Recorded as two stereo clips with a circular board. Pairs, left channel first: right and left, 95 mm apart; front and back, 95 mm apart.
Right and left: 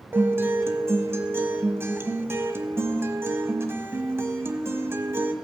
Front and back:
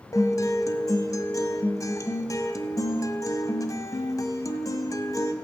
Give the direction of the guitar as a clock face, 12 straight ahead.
11 o'clock.